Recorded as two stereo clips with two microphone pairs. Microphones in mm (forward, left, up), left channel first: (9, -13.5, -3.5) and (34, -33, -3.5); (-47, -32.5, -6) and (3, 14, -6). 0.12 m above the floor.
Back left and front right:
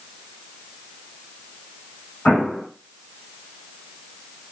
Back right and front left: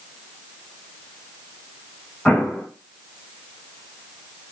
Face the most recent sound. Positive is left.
turn(degrees=140)